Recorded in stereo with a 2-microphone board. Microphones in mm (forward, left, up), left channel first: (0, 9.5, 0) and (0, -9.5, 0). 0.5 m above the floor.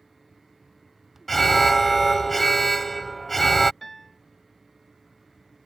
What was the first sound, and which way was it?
An alarm, 10° left (ahead or behind).